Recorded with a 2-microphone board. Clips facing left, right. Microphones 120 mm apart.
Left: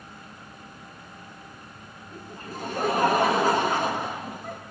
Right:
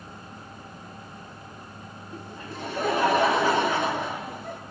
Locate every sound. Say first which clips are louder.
2.1 s laughter: even; 40° left (ahead or behind), 3.5 m